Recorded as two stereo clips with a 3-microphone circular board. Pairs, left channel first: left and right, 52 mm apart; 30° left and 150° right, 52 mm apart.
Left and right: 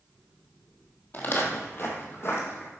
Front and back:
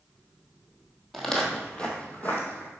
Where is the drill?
No drill in this recording.